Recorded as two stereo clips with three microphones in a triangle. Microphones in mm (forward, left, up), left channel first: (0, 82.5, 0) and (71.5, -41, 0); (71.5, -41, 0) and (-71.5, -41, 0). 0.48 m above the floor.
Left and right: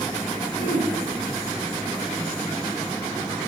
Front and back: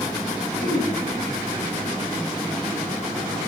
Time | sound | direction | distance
0.6 | throat clearing | 10° left | 3.5 m